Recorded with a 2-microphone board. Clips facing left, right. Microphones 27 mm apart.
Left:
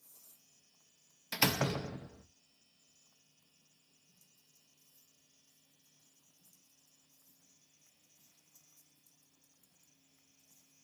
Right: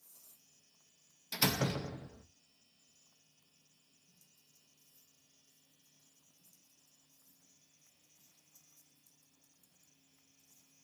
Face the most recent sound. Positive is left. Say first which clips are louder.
# left 1 dB
turn(degrees=35)  # may be behind; listen again after turning